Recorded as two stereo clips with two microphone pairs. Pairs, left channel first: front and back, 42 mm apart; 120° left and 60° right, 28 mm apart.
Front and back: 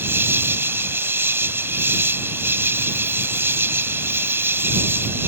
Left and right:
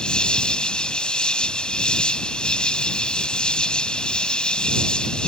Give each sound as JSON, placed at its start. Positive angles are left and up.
{"t": 0.0, "sound": "an insect", "azimuth_deg": 175}